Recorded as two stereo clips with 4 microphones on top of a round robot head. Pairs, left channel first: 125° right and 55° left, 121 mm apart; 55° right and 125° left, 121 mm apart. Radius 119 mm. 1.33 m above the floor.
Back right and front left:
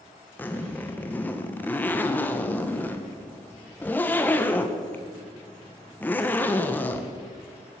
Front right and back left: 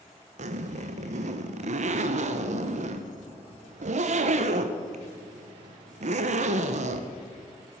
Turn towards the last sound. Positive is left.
turn(degrees=155)